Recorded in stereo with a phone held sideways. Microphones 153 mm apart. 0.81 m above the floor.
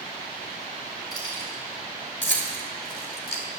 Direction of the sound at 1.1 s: 25° left (ahead or behind).